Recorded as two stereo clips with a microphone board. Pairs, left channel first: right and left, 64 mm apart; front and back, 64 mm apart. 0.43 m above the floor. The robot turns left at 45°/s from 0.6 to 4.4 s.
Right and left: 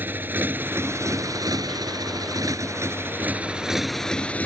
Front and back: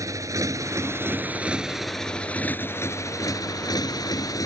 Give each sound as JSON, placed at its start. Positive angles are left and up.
{"t": 0.0, "sound": "a motorcycle", "azimuth_deg": 145}